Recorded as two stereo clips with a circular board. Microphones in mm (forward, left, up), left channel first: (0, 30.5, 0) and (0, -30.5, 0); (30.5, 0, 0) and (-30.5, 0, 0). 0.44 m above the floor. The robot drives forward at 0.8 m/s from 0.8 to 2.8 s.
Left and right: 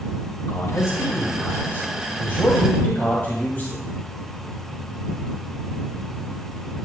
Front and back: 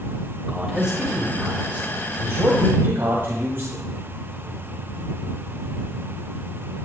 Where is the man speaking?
105° left, 2.5 m; by 3.8 s 140° left, 3 m.